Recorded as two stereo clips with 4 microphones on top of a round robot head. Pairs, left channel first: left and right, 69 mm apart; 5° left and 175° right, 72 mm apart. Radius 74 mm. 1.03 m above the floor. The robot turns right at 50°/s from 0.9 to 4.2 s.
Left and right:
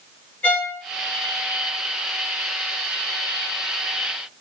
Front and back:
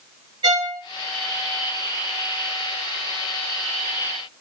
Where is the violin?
165° left, 1.1 m.